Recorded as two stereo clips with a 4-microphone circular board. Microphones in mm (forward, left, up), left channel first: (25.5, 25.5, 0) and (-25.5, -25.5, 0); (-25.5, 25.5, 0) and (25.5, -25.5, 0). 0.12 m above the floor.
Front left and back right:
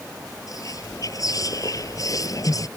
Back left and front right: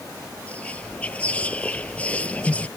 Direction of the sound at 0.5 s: 65° left.